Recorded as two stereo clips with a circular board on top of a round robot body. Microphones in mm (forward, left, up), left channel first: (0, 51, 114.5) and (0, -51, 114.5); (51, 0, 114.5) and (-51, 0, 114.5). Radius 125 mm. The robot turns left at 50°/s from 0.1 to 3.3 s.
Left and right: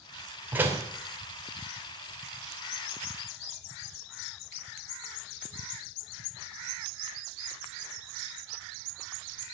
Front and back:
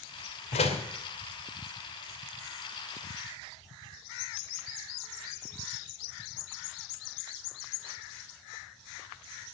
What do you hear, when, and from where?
0.5 s a door slam: 15° right, 2.5 m; by 0.9 s 30° right, 2.5 m